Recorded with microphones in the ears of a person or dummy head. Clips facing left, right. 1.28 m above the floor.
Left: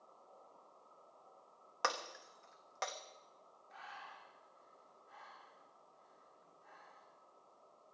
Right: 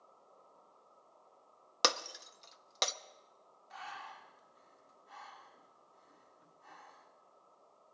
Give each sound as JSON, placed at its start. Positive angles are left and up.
{"t": 1.8, "sound": "breaking glass", "side_deg": -55, "distance_m": 0.9}
{"t": 3.7, "sound": "breathing", "side_deg": -80, "distance_m": 2.5}